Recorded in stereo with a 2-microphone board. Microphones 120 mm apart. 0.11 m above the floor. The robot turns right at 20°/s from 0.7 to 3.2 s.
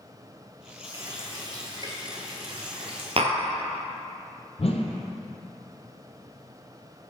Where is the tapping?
60° right (ahead or behind), 0.7 m.